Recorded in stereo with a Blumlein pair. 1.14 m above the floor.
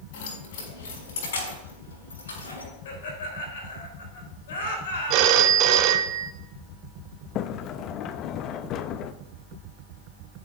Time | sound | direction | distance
0.1 | keys jangling | 50° left | 6 m
2.9 | laughter | 55° left | 5 m
5.1 | a phone ringing | 40° right | 1.0 m
7.3 | a sliding door | 35° left | 0.7 m